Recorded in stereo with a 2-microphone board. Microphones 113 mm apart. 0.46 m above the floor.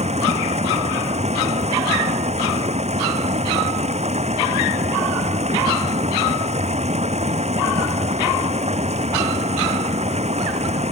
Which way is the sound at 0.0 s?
70° right (ahead or behind).